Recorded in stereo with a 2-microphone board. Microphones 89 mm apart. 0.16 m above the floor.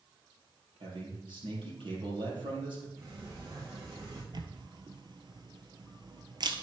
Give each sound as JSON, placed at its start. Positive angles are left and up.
{"t": 0.8, "sound": "a man speaking", "side_deg": -70, "distance_m": 4.0}
{"t": 3.0, "sound": "a sliding door", "side_deg": -45, "distance_m": 3.0}
{"t": 4.3, "sound": "a camera shutter", "side_deg": -55, "distance_m": 1.0}